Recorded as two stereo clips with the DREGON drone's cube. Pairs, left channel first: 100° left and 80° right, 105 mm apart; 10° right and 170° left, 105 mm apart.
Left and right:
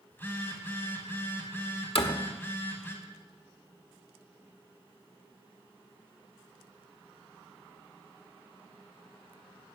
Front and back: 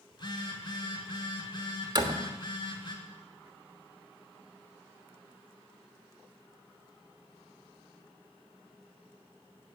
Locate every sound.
0.1 s a phone buzzing: 30° left, 2.5 m
1.9 s a door slam: 125° left, 1.3 m